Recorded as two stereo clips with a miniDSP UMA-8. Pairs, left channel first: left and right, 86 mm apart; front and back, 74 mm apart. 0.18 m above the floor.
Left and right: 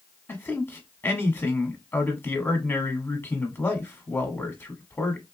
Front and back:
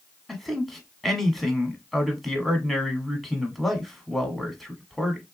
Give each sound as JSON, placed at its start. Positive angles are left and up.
{"t": 0.3, "sound": "a man speaking", "azimuth_deg": 85, "distance_m": 1.1}